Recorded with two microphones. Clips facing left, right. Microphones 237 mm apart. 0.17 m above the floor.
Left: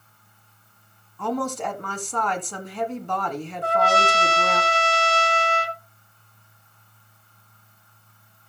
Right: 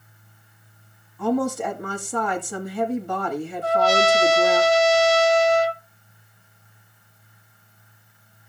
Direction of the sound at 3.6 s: 55° left (ahead or behind).